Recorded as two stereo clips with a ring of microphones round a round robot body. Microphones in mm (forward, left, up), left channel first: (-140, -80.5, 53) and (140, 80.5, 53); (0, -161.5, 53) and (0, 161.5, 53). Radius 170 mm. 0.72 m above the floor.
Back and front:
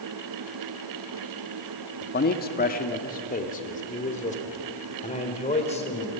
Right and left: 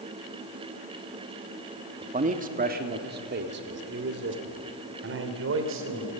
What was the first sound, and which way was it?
A man speaking, 155° left.